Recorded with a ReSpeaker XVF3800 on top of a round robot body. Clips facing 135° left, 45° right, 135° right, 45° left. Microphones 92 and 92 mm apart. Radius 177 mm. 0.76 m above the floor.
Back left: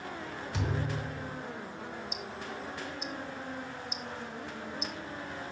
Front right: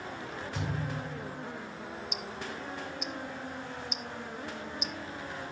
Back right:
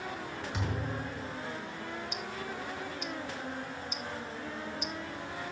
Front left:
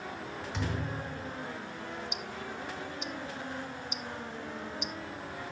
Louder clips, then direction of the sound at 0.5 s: Back left 2 dB, front left 1 dB; 140° left.